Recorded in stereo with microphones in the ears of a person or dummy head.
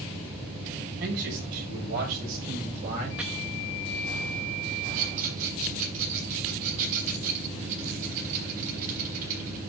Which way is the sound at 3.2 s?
5° right (ahead or behind).